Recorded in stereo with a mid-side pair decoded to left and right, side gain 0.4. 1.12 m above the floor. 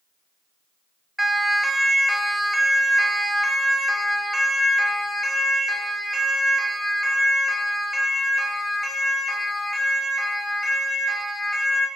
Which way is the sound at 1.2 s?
Straight ahead.